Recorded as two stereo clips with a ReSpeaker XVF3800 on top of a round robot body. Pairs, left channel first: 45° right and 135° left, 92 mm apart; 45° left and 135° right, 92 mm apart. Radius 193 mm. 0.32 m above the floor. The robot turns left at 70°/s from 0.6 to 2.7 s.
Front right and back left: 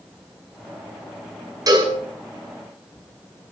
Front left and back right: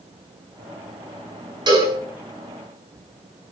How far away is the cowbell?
About 5 m.